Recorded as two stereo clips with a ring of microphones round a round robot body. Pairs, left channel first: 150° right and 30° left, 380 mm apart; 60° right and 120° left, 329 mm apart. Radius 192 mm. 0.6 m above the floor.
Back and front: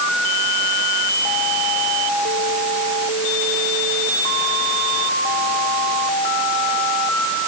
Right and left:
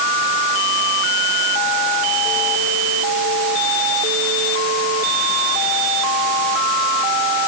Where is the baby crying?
No baby crying in this recording.